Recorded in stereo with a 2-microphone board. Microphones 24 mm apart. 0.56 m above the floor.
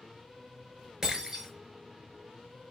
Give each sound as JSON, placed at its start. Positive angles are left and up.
{"t": 1.0, "sound": "breaking glass", "side_deg": -25, "distance_m": 4.5}